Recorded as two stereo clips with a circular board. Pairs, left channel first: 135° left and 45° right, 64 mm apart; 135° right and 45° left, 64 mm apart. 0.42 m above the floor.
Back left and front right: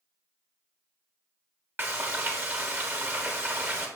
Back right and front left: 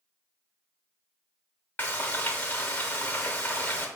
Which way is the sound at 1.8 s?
90° right.